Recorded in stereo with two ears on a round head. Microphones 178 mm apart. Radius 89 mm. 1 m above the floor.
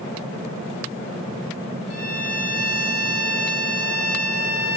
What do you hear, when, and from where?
1.9 s a violin: 80° left, 4.5 m